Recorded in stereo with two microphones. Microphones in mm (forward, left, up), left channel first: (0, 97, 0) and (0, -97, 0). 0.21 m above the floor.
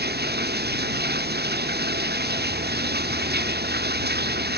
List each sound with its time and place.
0.0 s running water: 55° right (ahead or behind)